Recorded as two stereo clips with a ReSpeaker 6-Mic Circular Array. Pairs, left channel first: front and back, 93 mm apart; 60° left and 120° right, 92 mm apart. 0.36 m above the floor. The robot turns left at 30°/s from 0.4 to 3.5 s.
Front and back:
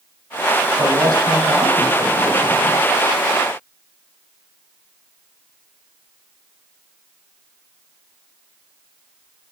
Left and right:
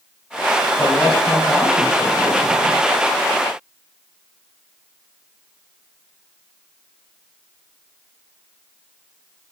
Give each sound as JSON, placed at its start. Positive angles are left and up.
{"t": 0.8, "sound": "a man speaking", "azimuth_deg": 160, "distance_m": 2.0}